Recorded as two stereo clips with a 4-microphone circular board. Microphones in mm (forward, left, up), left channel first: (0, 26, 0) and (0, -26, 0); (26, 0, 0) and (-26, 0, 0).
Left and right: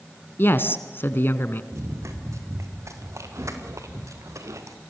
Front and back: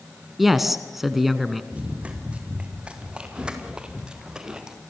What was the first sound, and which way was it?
A man speaking, 95° left.